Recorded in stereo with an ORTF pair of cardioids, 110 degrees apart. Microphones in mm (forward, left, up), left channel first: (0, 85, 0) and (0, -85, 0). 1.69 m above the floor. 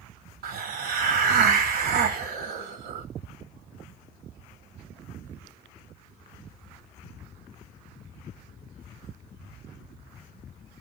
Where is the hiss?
65° right, 0.8 m.